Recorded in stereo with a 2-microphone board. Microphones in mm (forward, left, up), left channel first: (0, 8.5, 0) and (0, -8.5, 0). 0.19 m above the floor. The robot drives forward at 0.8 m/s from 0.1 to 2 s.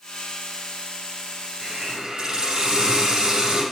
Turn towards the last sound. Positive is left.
turn(degrees=-50)  # may be behind; listen again after turning